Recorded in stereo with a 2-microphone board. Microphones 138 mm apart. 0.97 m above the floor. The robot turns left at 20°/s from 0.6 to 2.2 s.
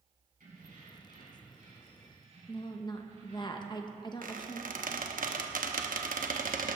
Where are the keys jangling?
95° right, 6 m; by 3.5 s 125° right, 6 m.